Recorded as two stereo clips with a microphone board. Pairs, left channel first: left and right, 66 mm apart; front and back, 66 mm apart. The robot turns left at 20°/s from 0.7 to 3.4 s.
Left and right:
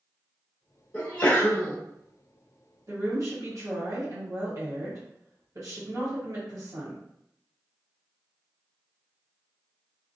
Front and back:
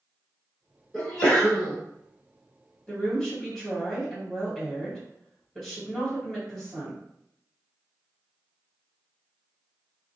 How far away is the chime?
I don't hear a chime.